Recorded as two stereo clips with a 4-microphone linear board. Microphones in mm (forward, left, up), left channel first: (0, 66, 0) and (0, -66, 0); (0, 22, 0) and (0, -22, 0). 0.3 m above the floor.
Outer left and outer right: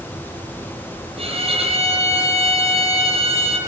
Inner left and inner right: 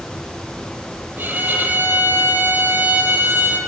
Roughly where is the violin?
Right.